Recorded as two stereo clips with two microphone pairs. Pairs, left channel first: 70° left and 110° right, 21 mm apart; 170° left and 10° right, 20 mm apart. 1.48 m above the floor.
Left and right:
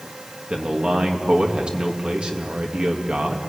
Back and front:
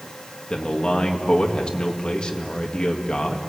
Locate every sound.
0.5 s a man speaking: 150° right, 2.5 m